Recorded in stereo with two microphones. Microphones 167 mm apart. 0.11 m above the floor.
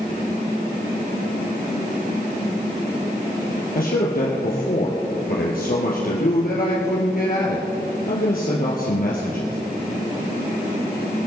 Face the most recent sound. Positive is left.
turn(degrees=60)  # may be behind; listen again after turning